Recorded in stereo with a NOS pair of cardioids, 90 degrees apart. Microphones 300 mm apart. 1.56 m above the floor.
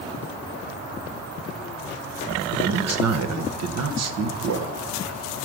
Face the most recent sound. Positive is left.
turn(degrees=-60)